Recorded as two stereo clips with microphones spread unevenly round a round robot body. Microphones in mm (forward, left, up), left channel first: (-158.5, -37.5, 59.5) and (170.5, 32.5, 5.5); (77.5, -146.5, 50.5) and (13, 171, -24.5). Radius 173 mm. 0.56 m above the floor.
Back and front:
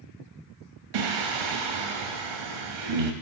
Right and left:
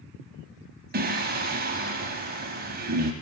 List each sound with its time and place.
0.9 s singing: 35° left, 0.7 m